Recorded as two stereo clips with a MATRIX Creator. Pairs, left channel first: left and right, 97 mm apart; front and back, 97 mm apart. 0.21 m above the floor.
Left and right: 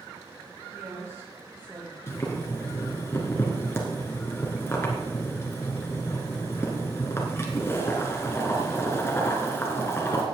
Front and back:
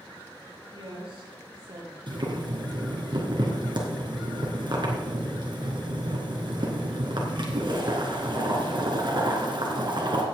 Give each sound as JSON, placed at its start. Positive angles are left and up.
{"t": 0.7, "sound": "a woman speaking", "azimuth_deg": -150, "distance_m": 5.0}
{"t": 2.1, "sound": "boiling", "azimuth_deg": 150, "distance_m": 2.5}